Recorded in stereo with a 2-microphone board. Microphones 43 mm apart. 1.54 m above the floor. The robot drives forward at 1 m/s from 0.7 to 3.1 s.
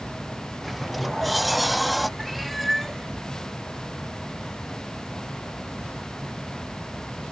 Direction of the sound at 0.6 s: Centre (ahead or behind).